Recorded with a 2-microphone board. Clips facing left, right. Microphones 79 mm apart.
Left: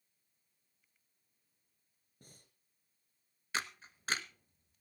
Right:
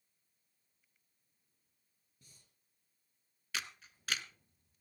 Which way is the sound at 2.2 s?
50° left (ahead or behind).